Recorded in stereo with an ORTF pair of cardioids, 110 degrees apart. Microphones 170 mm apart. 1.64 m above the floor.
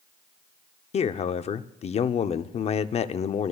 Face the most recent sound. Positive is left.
turn(degrees=40)